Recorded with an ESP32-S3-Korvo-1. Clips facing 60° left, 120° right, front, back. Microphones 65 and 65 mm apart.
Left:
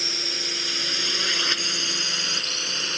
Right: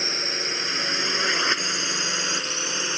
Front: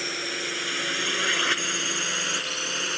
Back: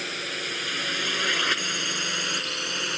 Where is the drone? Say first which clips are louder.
Right 3 dB, front 1 dB; 85° right.